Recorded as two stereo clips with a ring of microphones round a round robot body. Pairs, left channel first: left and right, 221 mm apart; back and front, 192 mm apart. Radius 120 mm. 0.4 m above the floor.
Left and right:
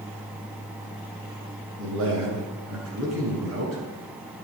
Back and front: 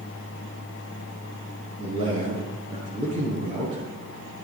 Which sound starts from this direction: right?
A man speaking, at 1.8 s.